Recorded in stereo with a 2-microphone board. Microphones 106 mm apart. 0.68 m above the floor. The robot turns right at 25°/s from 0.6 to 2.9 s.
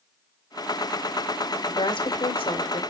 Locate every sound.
1.7 s a woman speaking: 50° left (ahead or behind), 2.5 m; by 2.8 s 70° left (ahead or behind), 2.5 m